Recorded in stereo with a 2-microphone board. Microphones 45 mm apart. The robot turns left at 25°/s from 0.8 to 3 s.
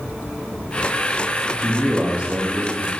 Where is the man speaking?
10° right, 1.8 m; by 2.9 s 40° right, 1.8 m.